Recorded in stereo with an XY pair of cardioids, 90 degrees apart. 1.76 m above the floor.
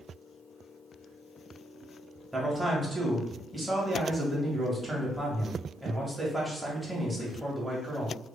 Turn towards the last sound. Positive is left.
turn(degrees=-10)